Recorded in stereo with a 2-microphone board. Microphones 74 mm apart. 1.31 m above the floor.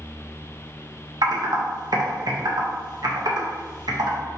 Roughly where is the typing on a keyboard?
Right.